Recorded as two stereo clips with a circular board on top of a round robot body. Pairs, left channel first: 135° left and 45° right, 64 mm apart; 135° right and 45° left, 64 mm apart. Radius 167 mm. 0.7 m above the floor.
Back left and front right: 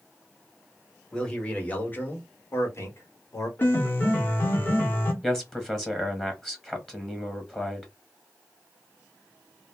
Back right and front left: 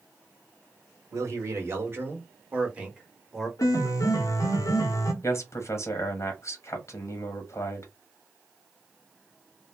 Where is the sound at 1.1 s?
60° left, 1.4 m; by 3.5 s 130° left, 1.2 m.